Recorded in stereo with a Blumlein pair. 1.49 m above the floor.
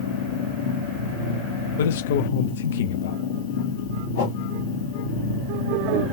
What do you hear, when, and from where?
0.0 s a machine running: 55° left, 1.4 m
1.8 s a man speaking: 60° left, 0.6 m
4.2 s a whoosh: 60° left, 1.6 m